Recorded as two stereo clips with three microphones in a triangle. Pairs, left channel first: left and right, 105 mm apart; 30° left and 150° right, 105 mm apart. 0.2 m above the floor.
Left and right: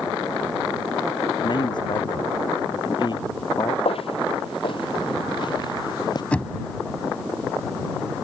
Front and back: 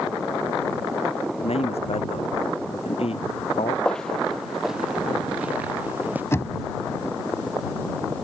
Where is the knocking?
30° left.